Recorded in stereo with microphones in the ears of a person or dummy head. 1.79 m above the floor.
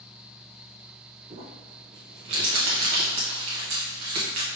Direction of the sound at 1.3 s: 25° right (ahead or behind).